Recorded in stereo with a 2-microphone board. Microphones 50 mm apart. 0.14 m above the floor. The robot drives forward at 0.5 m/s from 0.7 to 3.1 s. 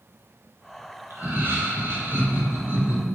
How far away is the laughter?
About 3.5 m.